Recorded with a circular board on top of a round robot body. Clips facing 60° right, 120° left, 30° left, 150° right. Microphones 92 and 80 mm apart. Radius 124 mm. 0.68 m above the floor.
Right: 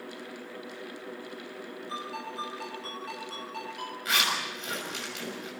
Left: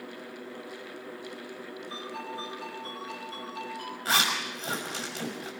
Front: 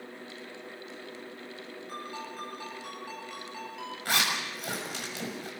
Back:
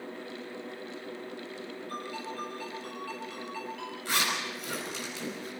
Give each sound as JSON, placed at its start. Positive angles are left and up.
{"t": 1.9, "sound": "a ringtone", "azimuth_deg": -40, "distance_m": 9.0}
{"t": 4.0, "sound": "a zipper", "azimuth_deg": 65, "distance_m": 6.5}